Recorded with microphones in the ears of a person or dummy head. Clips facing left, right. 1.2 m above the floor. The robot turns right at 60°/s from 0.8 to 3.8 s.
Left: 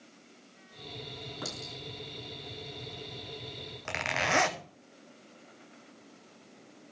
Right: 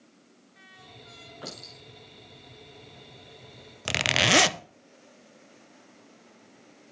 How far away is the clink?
About 7 m.